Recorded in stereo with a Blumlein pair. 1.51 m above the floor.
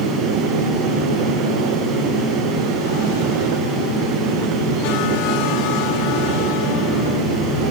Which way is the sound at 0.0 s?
15° right.